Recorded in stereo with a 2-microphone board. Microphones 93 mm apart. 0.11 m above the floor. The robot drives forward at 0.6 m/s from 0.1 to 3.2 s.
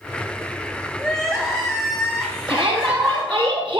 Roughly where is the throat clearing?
No throat clearing in this recording.